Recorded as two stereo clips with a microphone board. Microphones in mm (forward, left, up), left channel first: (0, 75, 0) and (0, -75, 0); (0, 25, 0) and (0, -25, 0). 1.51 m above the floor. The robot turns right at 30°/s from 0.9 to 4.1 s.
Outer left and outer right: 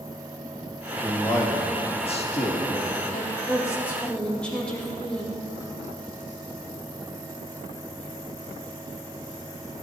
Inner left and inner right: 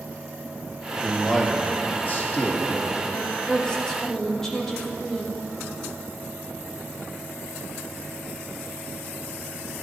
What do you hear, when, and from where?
1.0 s a man speaking: 10° left, 1.8 m; by 3.0 s 70° left, 1.8 m
3.1 s a woman speaking: 35° left (ahead or behind), 2.5 m; by 5.4 s 5° left (ahead or behind), 2.5 m